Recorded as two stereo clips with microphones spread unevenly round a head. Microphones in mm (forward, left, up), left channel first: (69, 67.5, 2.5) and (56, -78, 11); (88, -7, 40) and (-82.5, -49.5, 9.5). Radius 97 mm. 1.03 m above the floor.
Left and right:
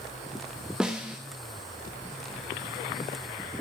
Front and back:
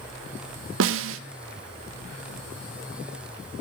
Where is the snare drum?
Straight behind, 0.5 m.